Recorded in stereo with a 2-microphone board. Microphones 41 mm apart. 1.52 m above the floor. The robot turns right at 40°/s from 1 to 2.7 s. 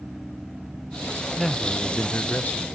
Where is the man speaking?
5° left, 0.7 m; by 2.7 s 60° left, 0.7 m.